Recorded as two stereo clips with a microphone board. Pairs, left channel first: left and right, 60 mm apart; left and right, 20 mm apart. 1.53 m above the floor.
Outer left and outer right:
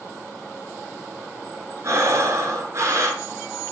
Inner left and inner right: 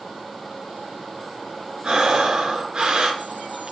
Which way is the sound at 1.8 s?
55° right (ahead or behind).